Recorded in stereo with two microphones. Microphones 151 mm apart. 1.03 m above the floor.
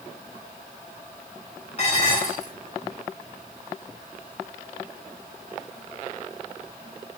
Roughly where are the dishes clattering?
Left.